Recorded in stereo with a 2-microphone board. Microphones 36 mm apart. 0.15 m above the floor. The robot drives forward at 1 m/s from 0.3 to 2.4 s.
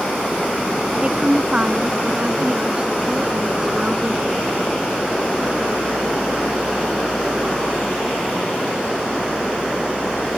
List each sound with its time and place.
1.0 s a woman speaking: 25° right (ahead or behind)